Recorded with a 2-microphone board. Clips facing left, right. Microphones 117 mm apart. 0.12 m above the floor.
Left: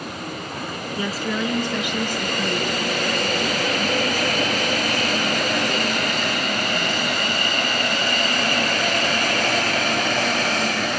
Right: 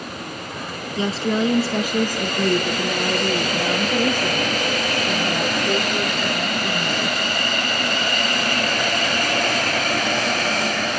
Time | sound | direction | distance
1.0 | a woman speaking | 25° right (ahead or behind) | 1.4 m